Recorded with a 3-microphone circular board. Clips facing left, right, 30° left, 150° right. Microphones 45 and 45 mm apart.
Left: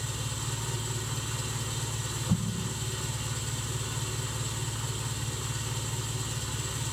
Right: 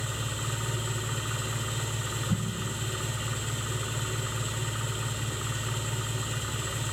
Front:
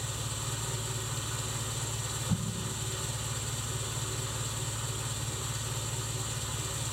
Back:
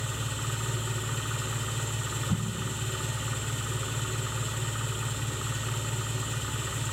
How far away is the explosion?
About 0.7 m.